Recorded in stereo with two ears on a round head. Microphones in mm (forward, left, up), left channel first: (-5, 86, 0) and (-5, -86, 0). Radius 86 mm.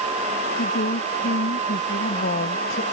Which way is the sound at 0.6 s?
60° left (ahead or behind).